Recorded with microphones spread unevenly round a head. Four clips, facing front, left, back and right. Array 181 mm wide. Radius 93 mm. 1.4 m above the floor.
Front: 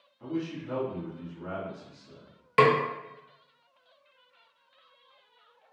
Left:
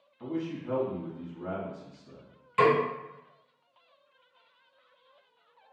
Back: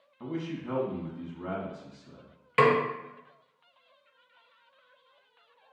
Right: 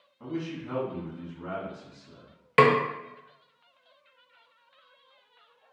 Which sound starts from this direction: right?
A snare drum, at 2.6 s.